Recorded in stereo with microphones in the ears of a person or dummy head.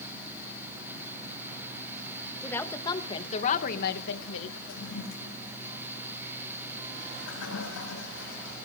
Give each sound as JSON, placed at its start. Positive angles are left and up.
{"t": 2.4, "sound": "a woman speaking", "side_deg": 15, "distance_m": 3.0}
{"t": 4.7, "sound": "a toilet flushing", "side_deg": 75, "distance_m": 8.0}